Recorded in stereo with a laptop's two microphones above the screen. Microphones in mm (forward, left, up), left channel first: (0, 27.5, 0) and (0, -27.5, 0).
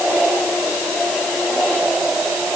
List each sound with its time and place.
Only background noise.